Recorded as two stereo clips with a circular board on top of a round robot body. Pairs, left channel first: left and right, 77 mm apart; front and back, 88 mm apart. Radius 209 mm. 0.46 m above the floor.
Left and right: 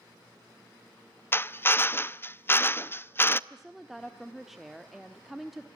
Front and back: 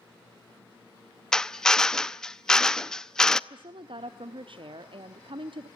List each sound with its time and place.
1.3 s a drill: 75° left, 1.0 m
3.5 s a woman speaking: 175° right, 1.4 m